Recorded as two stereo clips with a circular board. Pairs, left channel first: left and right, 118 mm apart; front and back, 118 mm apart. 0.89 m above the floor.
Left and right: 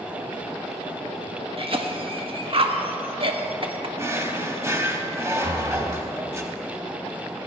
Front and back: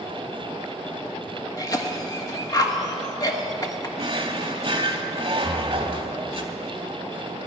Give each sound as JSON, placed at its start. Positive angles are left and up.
{"t": 1.6, "sound": "a cough", "azimuth_deg": -55, "distance_m": 1.3}
{"t": 4.0, "sound": "a drawer", "azimuth_deg": -150, "distance_m": 1.1}
{"t": 5.4, "sound": "breathing", "azimuth_deg": -145, "distance_m": 0.9}